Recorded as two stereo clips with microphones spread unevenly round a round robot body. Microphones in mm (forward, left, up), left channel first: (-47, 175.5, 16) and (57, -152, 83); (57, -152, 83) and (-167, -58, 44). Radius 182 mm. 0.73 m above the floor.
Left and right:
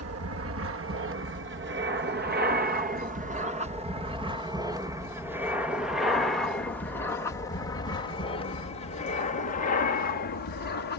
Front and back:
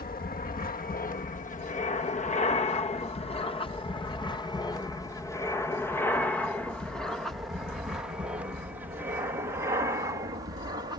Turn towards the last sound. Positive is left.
turn(degrees=105)